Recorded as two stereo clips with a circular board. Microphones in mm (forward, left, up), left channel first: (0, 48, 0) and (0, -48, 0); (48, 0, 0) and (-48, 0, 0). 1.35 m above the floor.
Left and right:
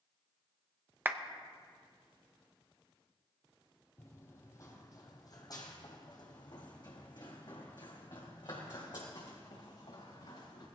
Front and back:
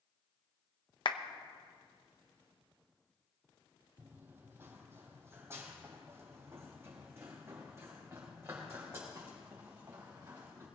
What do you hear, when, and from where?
1.1 s a clap: 25° right, 0.7 m
4.0 s running footsteps: 130° left, 1.6 m; by 10.7 s 115° left, 5 m